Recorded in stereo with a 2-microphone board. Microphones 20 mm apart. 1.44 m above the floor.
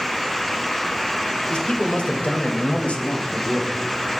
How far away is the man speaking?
About 1.9 m.